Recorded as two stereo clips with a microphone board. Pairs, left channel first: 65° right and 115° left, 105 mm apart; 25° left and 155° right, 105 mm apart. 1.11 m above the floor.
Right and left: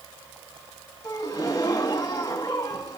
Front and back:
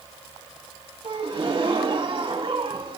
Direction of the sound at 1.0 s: 125° right.